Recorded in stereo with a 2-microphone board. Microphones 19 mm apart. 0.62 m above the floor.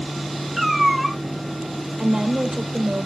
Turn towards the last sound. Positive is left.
turn(degrees=-55)  # may be behind; listen again after turning